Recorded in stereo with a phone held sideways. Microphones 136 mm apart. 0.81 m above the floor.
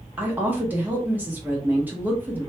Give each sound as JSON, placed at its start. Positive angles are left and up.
{"t": 0.2, "sound": "a woman speaking", "side_deg": -15, "distance_m": 0.8}